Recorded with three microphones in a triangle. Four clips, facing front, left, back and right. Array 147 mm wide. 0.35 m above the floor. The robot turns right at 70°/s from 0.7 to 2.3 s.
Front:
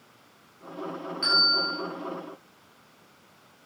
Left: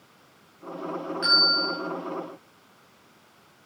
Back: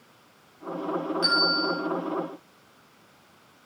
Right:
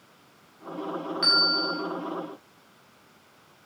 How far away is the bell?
About 9 m.